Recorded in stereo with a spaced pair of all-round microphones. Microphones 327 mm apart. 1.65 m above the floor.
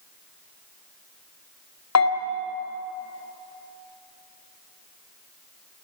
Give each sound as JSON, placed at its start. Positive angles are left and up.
{"t": 1.9, "sound": "a bell", "side_deg": 50, "distance_m": 2.0}